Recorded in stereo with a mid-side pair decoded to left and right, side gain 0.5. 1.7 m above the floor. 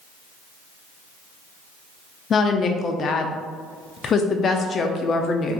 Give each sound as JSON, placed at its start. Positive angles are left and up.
{"t": 2.3, "sound": "a woman speaking", "azimuth_deg": 45, "distance_m": 0.5}